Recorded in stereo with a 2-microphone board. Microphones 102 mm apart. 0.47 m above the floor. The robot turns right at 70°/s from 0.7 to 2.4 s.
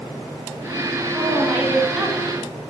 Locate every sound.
1.1 s a woman speaking: 20° right (ahead or behind), 0.9 m; by 2.5 s centre (ahead or behind), 0.9 m